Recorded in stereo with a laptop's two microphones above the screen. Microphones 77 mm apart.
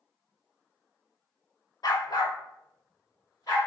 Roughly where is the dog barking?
Left.